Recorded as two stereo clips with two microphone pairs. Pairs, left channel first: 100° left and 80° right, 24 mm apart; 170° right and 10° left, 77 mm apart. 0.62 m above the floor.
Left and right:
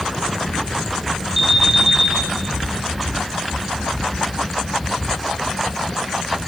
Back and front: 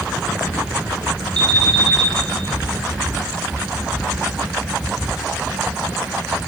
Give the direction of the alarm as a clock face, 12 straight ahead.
12 o'clock.